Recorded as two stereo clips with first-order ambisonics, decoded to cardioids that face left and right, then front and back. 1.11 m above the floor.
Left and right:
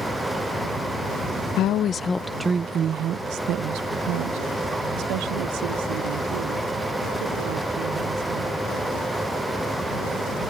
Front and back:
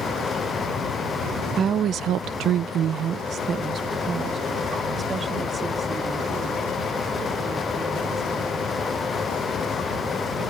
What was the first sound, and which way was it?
A woman speaking, 120° left.